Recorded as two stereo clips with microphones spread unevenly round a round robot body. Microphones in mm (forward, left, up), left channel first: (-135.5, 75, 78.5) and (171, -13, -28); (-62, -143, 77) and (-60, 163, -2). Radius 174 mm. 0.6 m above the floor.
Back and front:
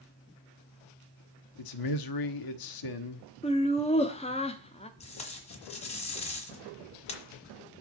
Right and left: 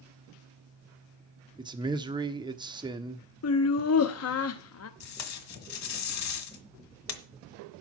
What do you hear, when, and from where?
1.6 s a man speaking: 150° left, 1.3 m
3.4 s laughter: 105° right, 0.8 m
5.0 s tape being pulled: 125° right, 1.6 m